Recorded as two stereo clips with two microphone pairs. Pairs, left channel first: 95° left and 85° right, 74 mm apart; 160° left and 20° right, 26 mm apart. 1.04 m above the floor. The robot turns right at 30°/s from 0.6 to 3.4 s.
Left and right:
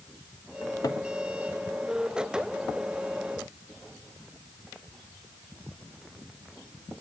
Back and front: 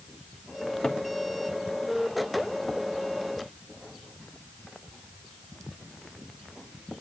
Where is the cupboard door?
110° left, 1.0 m; by 1.0 s 125° left, 1.0 m.